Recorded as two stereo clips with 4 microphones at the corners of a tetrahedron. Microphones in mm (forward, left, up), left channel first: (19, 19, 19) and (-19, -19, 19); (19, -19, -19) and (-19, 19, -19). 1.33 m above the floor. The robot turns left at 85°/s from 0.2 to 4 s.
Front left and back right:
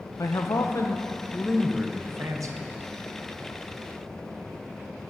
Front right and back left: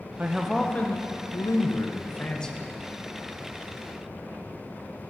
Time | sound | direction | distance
0.2 | a man speaking | 70° left | 0.8 m